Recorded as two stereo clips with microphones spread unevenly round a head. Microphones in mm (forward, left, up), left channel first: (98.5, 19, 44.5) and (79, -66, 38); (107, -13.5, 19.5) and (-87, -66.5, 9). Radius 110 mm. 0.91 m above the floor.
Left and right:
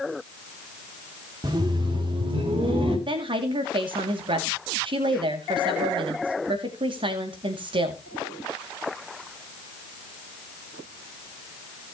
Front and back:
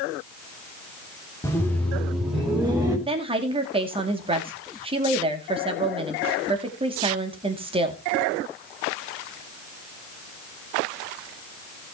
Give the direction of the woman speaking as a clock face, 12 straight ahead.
3 o'clock.